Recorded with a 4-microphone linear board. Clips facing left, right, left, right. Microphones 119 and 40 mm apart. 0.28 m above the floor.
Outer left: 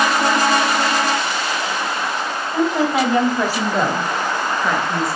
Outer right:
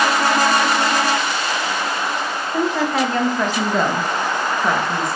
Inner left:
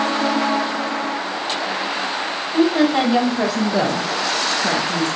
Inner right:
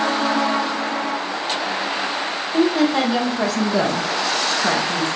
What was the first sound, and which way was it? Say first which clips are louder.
A woman speaking: outer left 2 dB, inner left 1 dB; 20° left (ahead or behind).